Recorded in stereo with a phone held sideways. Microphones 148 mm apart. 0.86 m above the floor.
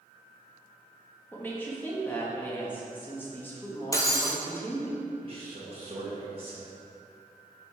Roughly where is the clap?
I don't hear a clap.